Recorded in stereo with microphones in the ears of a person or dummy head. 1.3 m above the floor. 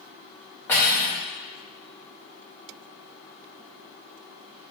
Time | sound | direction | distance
0.7 | cutlery clinking | 10° left (ahead or behind) | 0.7 m